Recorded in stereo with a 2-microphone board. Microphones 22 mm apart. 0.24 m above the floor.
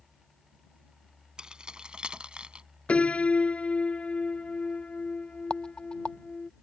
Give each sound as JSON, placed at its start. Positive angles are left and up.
{"t": 1.4, "sound": "keys jangling", "side_deg": -40}
{"t": 2.9, "sound": "a piano", "side_deg": 85}
{"t": 5.5, "sound": "a rattle", "side_deg": 45}